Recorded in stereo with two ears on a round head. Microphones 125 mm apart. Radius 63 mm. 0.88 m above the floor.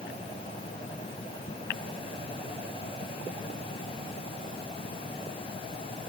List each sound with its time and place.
Only background noise.